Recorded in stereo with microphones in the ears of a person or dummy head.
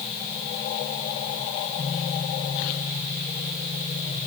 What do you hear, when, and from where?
Only background noise.